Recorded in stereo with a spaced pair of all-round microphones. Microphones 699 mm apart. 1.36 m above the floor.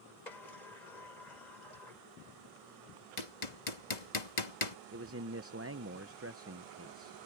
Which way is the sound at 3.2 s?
75° left (ahead or behind).